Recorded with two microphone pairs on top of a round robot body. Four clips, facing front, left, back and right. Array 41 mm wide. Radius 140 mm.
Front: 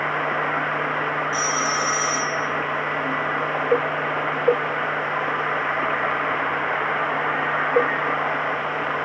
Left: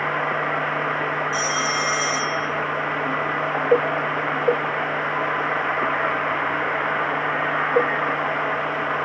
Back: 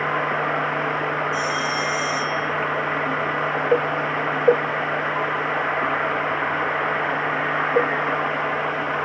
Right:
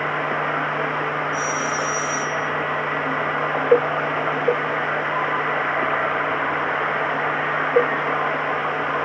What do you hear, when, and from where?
1.3 s a phone ringing: 55° left, 4.5 m